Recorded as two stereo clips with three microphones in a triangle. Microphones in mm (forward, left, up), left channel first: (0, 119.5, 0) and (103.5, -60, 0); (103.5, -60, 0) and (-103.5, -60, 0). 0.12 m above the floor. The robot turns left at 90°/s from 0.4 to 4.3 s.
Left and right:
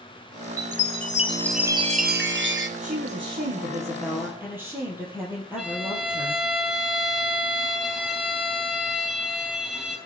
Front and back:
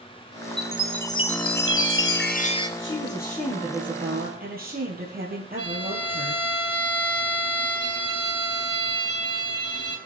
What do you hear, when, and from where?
0.6 s a chime: 115° left, 1.0 m; by 2.7 s 75° right, 1.0 m
2.8 s a woman speaking: 5° right, 3 m; by 6.4 s 140° right, 3 m
5.6 s a violin: 25° left, 3 m